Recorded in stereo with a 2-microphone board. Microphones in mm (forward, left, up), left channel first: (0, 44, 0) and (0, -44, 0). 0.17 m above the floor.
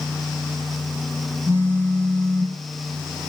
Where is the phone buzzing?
25° right (ahead or behind), 1.7 m.